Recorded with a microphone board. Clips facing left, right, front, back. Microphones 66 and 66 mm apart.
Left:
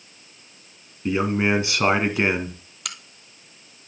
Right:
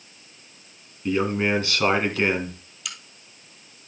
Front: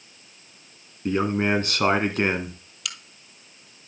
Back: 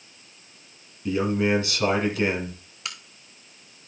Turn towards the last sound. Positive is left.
turn(degrees=120)